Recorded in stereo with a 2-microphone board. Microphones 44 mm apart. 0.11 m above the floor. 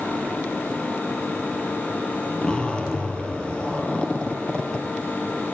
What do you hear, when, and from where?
2.4 s a zipper: 20° left (ahead or behind), 3 m